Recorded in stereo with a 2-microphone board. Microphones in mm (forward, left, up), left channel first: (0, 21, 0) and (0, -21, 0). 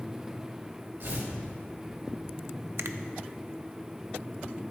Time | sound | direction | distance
1.0 | tearing paper | 65° right (ahead or behind) | 3 m
2.8 | a finger snap | 65° right (ahead or behind) | 0.5 m